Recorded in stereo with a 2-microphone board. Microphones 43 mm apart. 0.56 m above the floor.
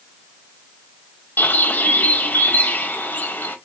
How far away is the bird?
About 1.2 m.